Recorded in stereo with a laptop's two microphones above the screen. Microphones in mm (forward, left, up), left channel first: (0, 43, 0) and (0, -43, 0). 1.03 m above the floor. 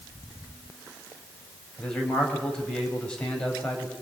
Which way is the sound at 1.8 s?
10° left (ahead or behind).